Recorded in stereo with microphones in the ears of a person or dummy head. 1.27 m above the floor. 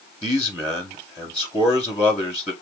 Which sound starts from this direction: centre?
A man speaking, at 0.2 s.